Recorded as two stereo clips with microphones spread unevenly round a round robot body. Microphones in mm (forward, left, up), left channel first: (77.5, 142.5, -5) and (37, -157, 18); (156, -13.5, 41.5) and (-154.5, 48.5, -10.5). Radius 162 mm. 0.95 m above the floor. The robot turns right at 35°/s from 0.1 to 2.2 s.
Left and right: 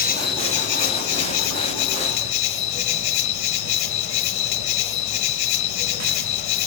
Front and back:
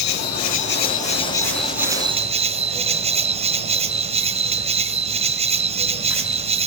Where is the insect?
20° left, 1.6 m; by 6.7 s 95° left, 1.6 m.